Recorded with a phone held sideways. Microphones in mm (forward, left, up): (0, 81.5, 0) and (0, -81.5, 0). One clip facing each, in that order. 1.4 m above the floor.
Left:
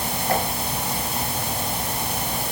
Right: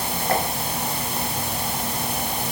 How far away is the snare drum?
No snare drum in this recording.